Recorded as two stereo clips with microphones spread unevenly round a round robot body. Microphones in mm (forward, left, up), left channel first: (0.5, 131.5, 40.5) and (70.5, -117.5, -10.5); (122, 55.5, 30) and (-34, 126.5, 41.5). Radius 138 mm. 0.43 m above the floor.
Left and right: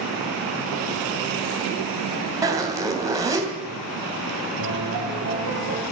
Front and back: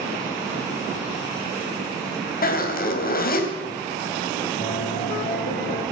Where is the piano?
80° right, 7.5 m.